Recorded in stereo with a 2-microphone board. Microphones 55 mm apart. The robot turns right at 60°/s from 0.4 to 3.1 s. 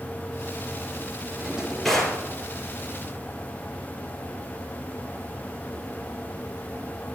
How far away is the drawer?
About 3.5 m.